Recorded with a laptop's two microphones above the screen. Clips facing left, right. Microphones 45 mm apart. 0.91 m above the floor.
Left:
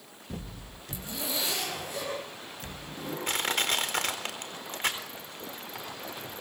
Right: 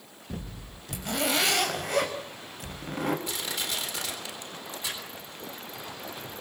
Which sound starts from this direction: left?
Crushing, at 3.3 s.